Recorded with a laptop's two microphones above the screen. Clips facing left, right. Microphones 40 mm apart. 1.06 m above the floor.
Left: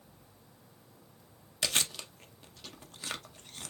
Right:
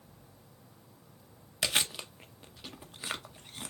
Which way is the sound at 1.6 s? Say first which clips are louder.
Right 2 dB; 15° right (ahead or behind).